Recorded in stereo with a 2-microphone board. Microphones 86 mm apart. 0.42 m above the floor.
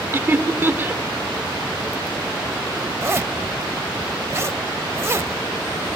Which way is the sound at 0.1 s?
30° right (ahead or behind).